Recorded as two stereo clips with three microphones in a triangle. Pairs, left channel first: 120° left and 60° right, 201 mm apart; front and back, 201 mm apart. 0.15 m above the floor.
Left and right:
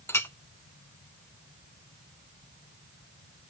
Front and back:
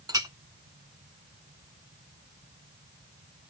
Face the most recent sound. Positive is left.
turn(degrees=170)